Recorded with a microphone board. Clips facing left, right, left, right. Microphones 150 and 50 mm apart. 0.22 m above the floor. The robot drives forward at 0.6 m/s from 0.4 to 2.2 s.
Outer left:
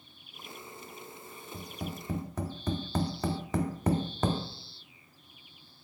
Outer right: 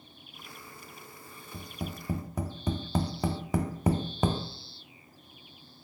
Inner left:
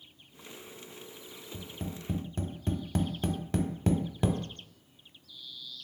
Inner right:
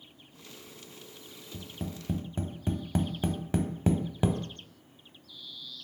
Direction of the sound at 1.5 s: 10° right (ahead or behind).